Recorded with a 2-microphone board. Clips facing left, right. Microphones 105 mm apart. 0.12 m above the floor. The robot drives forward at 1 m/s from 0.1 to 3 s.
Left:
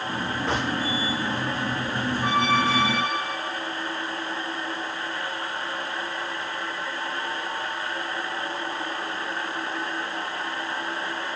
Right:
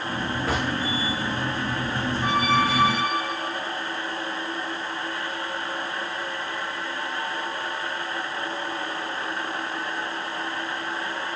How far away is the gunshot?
About 7.5 m.